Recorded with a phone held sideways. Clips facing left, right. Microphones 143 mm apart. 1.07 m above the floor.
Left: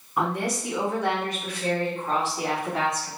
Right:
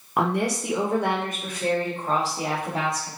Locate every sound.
0.2 s a woman speaking: 75° right (ahead or behind), 0.8 m; by 3.1 s 30° right (ahead or behind), 2 m